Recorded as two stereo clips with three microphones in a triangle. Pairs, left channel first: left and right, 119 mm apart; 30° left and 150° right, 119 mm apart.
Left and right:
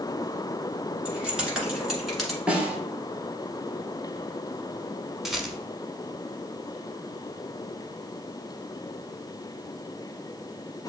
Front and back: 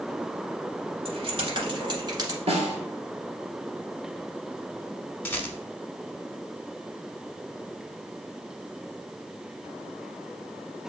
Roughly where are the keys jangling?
Behind.